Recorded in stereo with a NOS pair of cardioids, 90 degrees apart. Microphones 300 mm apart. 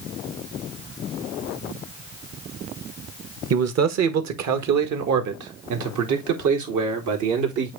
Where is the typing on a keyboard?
I don't hear typing on a keyboard.